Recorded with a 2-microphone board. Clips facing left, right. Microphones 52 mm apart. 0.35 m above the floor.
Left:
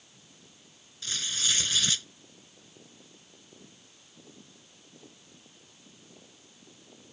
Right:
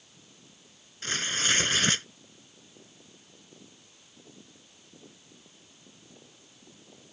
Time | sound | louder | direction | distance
1.0 | tearing paper | right 4 dB | 40° right (ahead or behind) | ?